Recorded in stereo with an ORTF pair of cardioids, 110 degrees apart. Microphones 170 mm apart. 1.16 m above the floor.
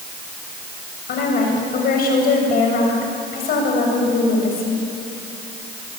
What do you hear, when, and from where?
1.1 s a woman speaking: 65° left, 7 m